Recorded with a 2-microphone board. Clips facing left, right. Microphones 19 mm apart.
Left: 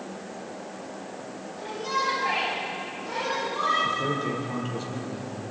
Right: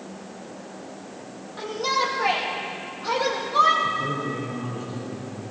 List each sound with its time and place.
1.6 s a shout: 85° right, 10 m
3.8 s a man speaking: 40° left (ahead or behind), 8 m